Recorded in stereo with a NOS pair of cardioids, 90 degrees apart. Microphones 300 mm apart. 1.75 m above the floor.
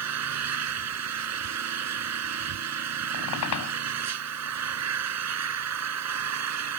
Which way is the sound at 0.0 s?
55° right.